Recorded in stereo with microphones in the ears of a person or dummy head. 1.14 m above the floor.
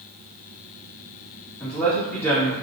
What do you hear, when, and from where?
1.6 s a man speaking: 10° left (ahead or behind), 1.3 m